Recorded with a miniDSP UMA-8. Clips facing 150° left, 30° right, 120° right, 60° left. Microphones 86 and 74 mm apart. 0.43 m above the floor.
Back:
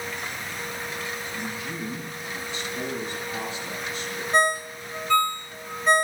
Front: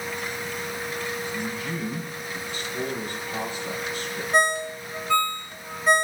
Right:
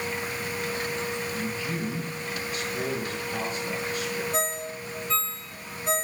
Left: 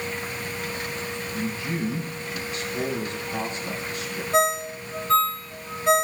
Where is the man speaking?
Straight ahead, 5.5 m.